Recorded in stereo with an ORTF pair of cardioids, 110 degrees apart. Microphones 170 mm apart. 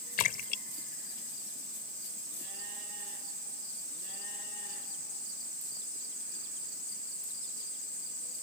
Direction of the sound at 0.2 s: 60° left.